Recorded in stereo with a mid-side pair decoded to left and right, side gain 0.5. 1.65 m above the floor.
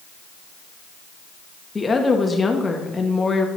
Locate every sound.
1.8 s a woman speaking: 25° left, 2.0 m